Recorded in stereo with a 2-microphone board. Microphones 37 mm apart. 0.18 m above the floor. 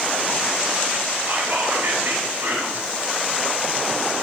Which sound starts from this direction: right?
Whispering, at 1.3 s.